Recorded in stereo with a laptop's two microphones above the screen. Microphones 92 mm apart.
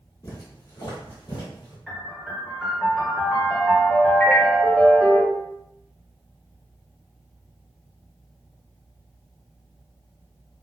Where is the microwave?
20° left (ahead or behind), 0.6 m.